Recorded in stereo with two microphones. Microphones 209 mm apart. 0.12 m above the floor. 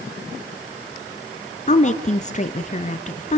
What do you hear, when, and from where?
1.7 s a woman speaking: 35° left (ahead or behind), 1.9 m